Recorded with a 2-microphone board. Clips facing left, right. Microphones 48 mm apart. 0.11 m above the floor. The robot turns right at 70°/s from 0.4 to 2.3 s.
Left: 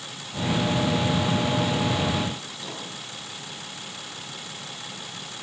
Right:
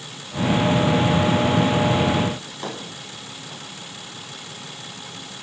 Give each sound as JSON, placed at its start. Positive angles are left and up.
{"t": 2.4, "sound": "a drawer", "side_deg": -55, "distance_m": 7.0}